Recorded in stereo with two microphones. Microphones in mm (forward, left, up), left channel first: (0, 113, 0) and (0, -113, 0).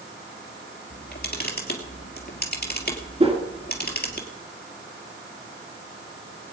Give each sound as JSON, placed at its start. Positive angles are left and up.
{"t": 0.9, "sound": "a camera shutter", "side_deg": 45, "distance_m": 2.5}
{"t": 3.2, "sound": "a whoosh", "side_deg": -25, "distance_m": 2.5}